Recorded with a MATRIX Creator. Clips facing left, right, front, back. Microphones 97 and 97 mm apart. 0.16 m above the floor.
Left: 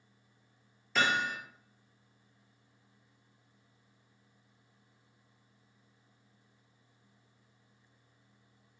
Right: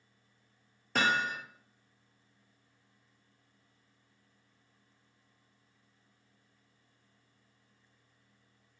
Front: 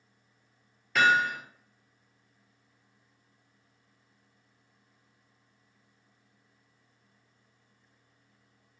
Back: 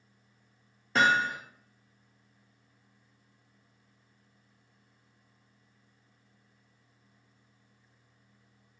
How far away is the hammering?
About 2.5 m.